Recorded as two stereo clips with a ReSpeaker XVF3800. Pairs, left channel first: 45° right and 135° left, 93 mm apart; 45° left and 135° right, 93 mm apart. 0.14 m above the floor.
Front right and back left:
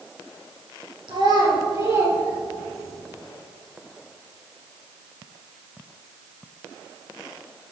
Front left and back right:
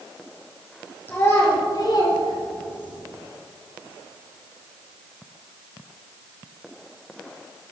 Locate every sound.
1.1 s a child speaking: 110° left, 3 m; by 3.0 s 45° left, 3.5 m